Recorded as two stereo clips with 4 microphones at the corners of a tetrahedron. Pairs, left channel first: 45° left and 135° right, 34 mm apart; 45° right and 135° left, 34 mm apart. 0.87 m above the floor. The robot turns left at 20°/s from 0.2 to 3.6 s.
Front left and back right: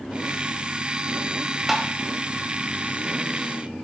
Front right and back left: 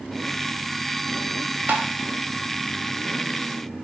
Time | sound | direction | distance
1.7 | tapping | 145° left | 1.4 m